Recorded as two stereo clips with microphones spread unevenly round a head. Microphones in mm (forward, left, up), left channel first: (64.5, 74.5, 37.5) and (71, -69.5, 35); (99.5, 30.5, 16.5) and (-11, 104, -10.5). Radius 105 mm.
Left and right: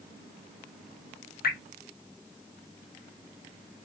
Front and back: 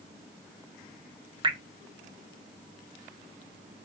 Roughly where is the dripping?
Left.